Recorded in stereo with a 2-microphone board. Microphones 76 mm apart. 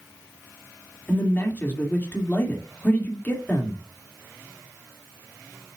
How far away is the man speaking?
About 2.0 m.